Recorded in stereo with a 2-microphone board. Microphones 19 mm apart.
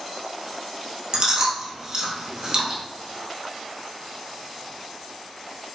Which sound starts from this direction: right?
Chewing, at 1.1 s.